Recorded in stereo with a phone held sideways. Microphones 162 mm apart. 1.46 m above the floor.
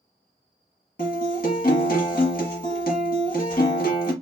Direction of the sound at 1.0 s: 65° left (ahead or behind).